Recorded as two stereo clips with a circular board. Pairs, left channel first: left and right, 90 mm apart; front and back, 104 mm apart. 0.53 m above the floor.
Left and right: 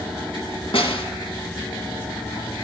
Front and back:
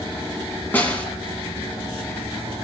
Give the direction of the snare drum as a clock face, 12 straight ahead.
10 o'clock.